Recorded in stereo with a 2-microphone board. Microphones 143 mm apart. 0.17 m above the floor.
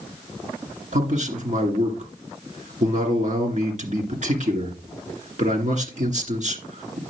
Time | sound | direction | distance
0.9 | a man speaking | 55° right (ahead or behind) | 2.5 m